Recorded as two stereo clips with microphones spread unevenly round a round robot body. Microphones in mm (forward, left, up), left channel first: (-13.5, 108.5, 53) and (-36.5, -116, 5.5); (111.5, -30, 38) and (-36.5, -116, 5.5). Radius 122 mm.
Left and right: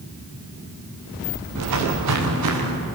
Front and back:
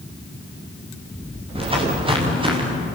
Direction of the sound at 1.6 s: 90° right.